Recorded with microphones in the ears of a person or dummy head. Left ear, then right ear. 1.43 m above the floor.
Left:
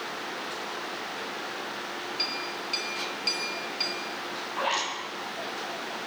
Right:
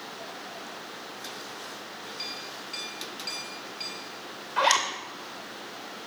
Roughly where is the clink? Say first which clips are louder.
Left 6 dB; left.